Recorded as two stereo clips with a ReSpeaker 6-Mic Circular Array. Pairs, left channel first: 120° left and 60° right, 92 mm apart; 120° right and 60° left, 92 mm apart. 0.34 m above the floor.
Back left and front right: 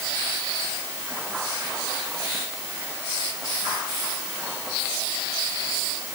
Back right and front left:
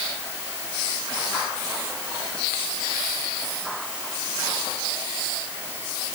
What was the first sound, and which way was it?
Only background noise.